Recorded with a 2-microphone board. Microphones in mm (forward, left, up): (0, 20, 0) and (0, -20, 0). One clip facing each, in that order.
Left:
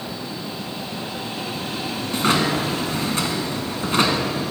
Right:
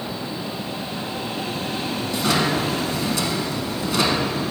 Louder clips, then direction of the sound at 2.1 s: Left 2 dB; 45° left (ahead or behind).